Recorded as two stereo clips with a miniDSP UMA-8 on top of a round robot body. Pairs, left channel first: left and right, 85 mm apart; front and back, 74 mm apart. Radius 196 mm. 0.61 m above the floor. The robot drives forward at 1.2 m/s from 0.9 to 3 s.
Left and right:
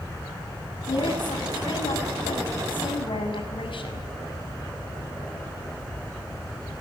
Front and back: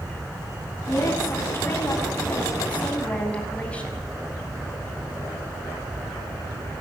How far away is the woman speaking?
About 8 m.